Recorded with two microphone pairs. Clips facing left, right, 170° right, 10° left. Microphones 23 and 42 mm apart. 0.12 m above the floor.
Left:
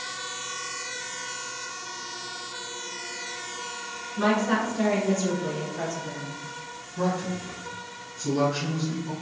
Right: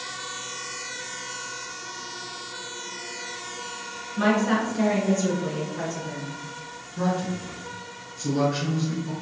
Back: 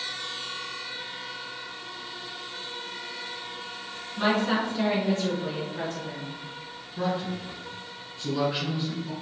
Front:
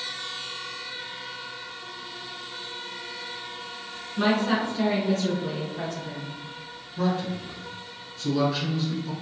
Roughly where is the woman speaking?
Right.